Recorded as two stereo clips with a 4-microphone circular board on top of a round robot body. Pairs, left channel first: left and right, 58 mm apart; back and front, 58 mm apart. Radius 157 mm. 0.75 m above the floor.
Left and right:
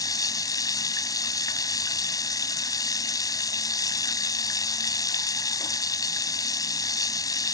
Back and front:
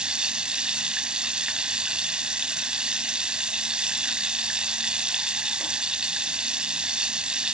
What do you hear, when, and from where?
0.0 s running water: 75° left